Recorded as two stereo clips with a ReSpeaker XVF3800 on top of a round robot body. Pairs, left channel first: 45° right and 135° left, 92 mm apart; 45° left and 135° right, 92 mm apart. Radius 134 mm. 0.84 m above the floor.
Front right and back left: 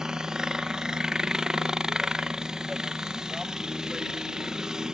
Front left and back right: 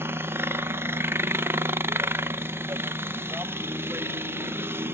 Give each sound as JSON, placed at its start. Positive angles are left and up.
{"t": 0.0, "sound": "a helicopter", "azimuth_deg": -150}